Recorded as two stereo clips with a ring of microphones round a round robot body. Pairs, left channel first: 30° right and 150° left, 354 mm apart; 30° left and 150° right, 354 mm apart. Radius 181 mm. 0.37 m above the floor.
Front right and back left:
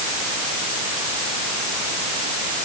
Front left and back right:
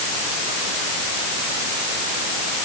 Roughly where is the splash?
I don't hear a splash.